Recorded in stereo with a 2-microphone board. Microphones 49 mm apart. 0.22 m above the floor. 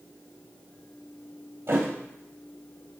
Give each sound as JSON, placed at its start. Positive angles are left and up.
{"t": 1.7, "sound": "a thud", "side_deg": -50, "distance_m": 2.5}